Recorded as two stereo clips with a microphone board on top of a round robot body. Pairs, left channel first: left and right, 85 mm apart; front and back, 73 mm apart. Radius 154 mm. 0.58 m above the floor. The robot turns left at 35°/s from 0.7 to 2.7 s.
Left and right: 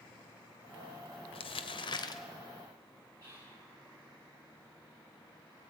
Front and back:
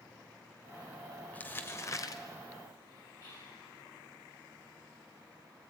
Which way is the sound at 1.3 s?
75° left.